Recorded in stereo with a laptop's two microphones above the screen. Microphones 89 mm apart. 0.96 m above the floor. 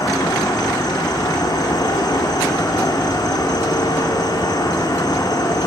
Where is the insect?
50° left (ahead or behind), 3.5 m.